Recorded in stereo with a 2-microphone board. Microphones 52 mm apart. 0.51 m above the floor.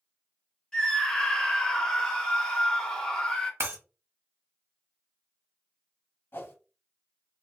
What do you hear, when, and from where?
0.7 s a scream: 15° left (ahead or behind), 2 m
3.6 s breaking glass: 55° right (ahead or behind), 1.1 m
6.3 s a whoosh: 45° left (ahead or behind), 1.0 m